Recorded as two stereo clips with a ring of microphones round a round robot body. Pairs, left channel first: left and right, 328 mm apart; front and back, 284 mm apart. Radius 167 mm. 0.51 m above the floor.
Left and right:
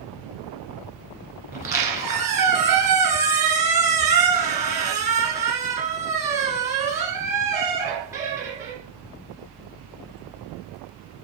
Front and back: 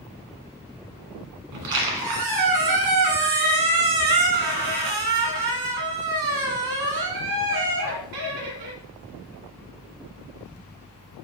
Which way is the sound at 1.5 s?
170° right.